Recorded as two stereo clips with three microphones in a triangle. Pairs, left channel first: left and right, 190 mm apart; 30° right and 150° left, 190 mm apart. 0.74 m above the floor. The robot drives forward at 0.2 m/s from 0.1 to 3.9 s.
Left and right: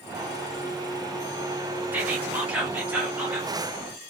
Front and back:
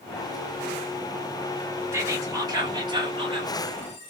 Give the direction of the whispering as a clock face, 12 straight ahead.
5 o'clock.